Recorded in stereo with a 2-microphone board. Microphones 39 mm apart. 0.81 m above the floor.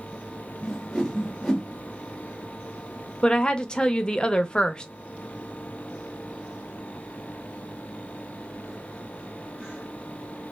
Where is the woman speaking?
25° left (ahead or behind), 0.5 m.